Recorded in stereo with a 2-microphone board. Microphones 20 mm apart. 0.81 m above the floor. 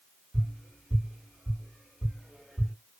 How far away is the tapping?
About 1.9 m.